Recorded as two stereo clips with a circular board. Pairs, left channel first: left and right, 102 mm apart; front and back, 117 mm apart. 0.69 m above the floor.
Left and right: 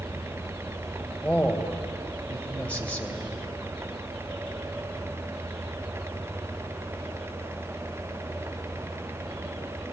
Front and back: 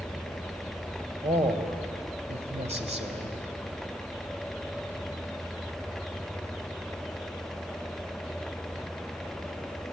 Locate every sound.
1.2 s a man speaking: 165° left, 2.5 m